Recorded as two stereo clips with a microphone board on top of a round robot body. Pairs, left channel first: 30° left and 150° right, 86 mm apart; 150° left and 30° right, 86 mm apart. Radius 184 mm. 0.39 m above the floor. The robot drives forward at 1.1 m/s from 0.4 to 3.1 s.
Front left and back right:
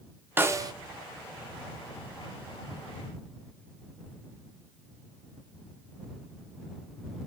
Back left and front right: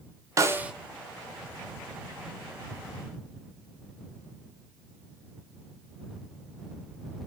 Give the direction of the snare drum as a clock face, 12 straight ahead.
3 o'clock.